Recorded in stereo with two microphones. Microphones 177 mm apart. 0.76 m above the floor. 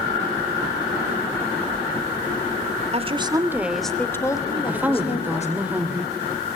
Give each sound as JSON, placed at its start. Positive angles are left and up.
{"t": 2.9, "sound": "a woman speaking", "side_deg": -35, "distance_m": 2.0}
{"t": 4.7, "sound": "a woman speaking", "side_deg": -10, "distance_m": 3.0}